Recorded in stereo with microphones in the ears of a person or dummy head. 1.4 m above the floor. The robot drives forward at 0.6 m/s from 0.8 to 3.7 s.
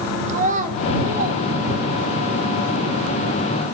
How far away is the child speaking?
About 1.9 m.